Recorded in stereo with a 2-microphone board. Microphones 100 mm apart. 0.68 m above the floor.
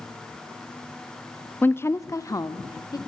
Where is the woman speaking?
20° left (ahead or behind), 0.7 m; by 3.0 s 40° left (ahead or behind), 1.8 m.